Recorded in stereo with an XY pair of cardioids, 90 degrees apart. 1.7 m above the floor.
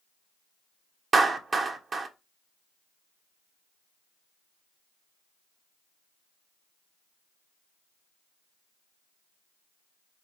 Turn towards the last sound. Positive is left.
turn(degrees=-45)